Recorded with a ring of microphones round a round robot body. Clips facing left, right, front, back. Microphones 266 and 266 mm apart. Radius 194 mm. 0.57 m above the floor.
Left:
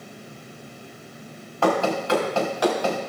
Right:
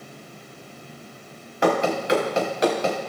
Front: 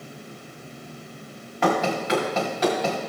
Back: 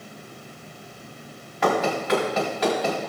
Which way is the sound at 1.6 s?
15° right.